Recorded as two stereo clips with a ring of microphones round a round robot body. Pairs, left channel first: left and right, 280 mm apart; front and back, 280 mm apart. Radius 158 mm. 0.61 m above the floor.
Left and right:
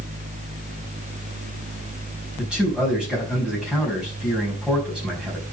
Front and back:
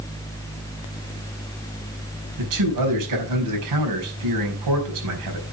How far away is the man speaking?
About 5 m.